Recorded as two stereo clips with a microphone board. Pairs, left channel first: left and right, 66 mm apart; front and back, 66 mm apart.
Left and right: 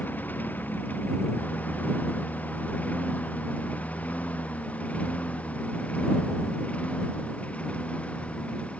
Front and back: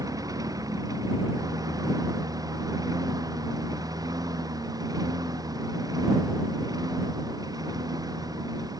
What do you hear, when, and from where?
0.0 s a lawn mower: 150° left; by 8.8 s 160° left